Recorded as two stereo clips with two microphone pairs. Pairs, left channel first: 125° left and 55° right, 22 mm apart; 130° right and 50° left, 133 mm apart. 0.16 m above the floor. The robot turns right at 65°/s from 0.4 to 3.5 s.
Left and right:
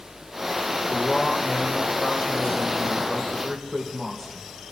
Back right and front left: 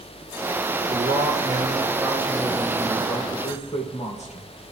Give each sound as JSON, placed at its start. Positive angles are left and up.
{"t": 0.9, "sound": "a man speaking", "azimuth_deg": 30, "distance_m": 4.0}